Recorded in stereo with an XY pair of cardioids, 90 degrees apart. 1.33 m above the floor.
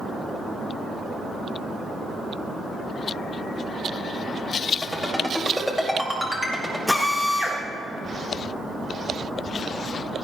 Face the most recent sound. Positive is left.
turn(degrees=0)